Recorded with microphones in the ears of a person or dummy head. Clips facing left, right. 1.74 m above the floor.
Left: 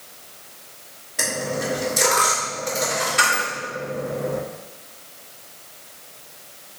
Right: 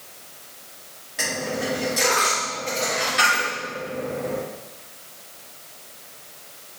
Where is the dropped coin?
5° right (ahead or behind), 1.9 m.